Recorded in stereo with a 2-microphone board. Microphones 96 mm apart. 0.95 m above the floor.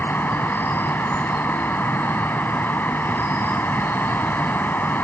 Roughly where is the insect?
Centre.